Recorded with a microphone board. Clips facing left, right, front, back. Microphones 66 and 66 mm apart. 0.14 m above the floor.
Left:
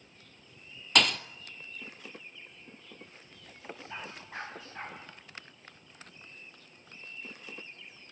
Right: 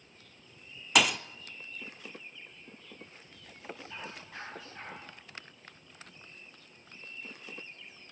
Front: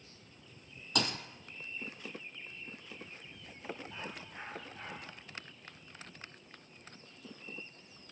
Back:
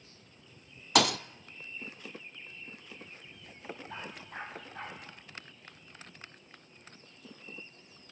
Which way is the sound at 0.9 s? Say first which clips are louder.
Right 1 dB, back 9 dB; 175° right.